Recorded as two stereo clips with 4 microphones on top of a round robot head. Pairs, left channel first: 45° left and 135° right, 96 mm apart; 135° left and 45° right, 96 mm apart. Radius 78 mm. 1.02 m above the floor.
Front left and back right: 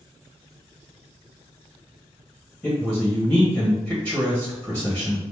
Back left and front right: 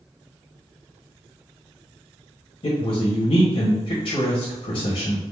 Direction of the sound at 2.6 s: 125° left.